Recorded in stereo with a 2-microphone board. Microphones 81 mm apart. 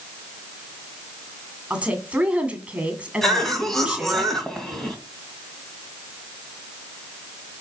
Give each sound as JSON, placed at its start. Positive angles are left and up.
{"t": 1.7, "sound": "a woman speaking", "side_deg": -15, "distance_m": 2.5}
{"t": 3.2, "sound": "a cough", "side_deg": 5, "distance_m": 2.0}